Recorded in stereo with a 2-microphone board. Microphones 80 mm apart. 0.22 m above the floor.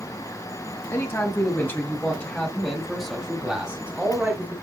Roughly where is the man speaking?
Left.